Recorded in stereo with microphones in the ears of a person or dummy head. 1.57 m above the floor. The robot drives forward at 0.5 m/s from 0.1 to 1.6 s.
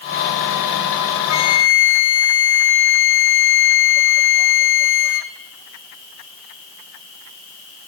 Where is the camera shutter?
I don't hear a camera shutter.